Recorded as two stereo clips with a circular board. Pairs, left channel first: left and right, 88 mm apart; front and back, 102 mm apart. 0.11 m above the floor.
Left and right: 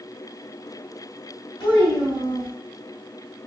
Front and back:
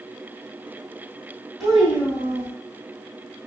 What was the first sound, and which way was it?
A child speaking, 90° left.